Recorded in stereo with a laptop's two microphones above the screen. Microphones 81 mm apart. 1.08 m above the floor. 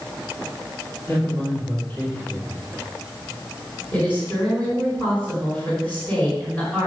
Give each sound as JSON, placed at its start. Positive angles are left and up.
{"t": 1.1, "sound": "a man speaking", "side_deg": 20, "distance_m": 3.5}
{"t": 3.9, "sound": "a woman speaking", "side_deg": 20, "distance_m": 4.5}